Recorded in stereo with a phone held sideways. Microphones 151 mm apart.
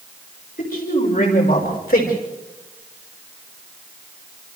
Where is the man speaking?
75° left (ahead or behind), 6 m.